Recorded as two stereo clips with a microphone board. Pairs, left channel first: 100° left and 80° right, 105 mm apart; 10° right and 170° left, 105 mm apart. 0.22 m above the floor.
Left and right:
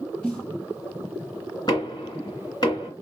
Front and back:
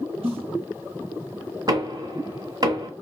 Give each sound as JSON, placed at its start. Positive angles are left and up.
{"t": 0.2, "sound": "a snare drum", "azimuth_deg": 180, "distance_m": 2.0}
{"t": 1.7, "sound": "knocking", "azimuth_deg": 135, "distance_m": 2.0}